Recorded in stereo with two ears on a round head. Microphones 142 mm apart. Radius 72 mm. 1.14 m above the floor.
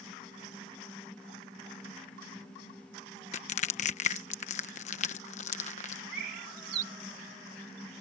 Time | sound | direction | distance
3.3 | crushing | 45° left (ahead or behind) | ?
6.1 | a bird | 70° right (ahead or behind) | ?